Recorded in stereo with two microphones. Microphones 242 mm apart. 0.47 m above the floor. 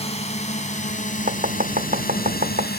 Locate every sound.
0.0 s a drone: 25° left (ahead or behind); by 2.8 s 40° left (ahead or behind)
1.3 s chopping: 35° right (ahead or behind)